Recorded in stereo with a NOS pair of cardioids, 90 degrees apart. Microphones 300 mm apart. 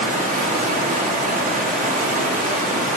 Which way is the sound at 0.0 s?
25° right.